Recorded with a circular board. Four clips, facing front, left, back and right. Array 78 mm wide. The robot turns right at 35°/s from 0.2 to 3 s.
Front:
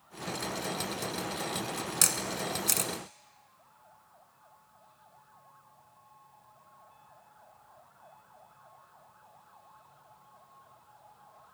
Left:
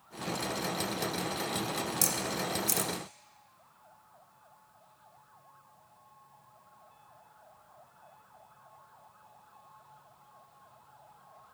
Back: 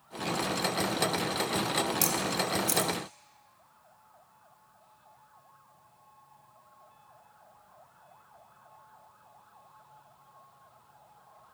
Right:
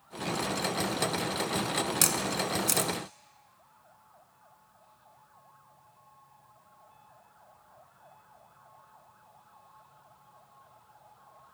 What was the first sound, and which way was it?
A camera shutter, 50° right.